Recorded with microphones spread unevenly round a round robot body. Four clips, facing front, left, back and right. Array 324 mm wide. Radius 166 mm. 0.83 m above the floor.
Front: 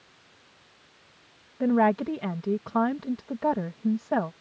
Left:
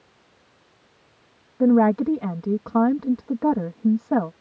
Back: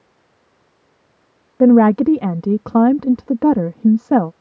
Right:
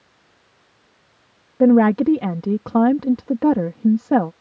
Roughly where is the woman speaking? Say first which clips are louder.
Right 4 dB, back 12 dB; behind.